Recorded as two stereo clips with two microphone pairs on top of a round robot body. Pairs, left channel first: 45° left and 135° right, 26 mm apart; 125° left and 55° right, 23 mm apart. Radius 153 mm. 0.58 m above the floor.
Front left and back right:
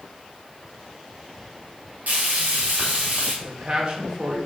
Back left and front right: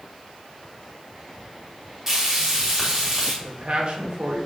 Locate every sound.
2.1 s frying: 125° right, 3.5 m
3.4 s a man speaking: 90° right, 2.5 m